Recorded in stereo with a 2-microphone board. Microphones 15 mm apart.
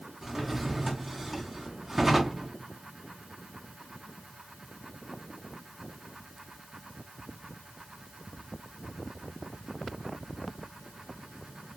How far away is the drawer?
About 0.6 m.